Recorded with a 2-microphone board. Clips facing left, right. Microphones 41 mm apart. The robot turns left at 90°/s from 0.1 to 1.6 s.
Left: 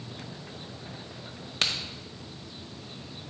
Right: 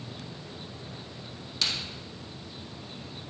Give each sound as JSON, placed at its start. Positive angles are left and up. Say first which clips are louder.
{"t": 1.6, "sound": "a crack", "louder": "left 2 dB", "side_deg": 45, "distance_m": 1.1}